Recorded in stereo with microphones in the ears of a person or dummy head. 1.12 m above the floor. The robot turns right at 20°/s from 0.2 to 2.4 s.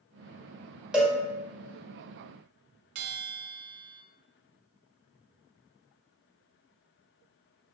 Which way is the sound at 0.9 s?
5° right (ahead or behind).